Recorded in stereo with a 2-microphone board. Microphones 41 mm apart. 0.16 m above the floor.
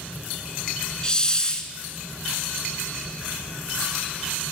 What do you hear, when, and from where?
1.0 s a hiss: 20° left (ahead or behind), 0.8 m